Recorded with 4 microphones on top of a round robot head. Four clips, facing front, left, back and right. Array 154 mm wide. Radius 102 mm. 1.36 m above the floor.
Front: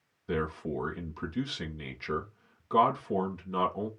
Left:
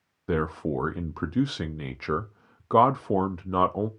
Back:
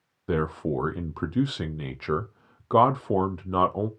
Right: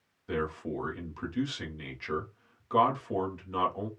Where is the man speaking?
135° left, 0.8 m.